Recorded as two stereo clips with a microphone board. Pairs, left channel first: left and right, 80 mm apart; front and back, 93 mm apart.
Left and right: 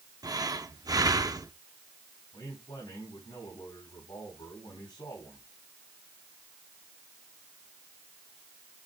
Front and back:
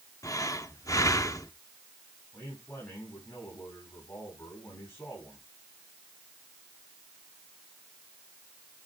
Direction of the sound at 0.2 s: 50° right.